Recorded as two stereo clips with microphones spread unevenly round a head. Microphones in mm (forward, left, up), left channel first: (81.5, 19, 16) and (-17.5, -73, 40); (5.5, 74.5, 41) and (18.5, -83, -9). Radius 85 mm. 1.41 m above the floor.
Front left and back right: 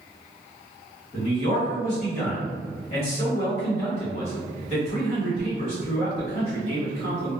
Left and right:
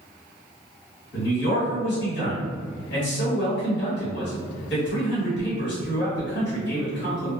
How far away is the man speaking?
About 1.4 m.